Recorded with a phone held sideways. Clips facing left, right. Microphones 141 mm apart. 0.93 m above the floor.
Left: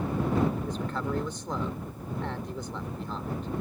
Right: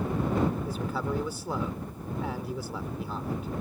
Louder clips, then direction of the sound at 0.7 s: Even; 5° right (ahead or behind).